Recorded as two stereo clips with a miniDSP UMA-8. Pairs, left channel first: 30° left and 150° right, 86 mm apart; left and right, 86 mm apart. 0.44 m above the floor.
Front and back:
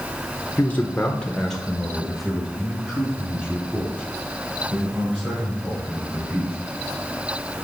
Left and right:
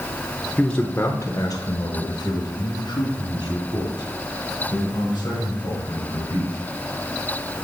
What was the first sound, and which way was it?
A man speaking, 20° left.